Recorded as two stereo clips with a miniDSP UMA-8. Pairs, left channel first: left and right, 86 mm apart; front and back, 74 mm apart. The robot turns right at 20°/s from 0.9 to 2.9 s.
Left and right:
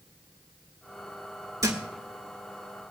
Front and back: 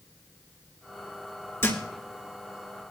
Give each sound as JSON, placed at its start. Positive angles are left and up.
{"t": 1.6, "sound": "a thud", "azimuth_deg": -55, "distance_m": 2.5}